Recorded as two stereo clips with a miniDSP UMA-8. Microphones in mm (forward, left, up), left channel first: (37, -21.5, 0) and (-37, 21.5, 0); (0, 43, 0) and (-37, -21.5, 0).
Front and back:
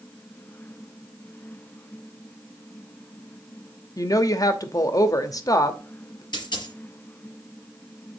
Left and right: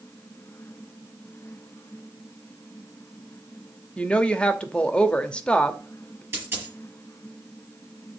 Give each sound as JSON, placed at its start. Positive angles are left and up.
{"t": 4.0, "sound": "a woman speaking", "azimuth_deg": -10, "distance_m": 0.9}
{"t": 6.3, "sound": "a dropped coin", "azimuth_deg": -65, "distance_m": 5.0}